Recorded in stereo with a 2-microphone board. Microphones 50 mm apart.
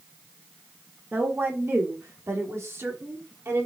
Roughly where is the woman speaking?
Right.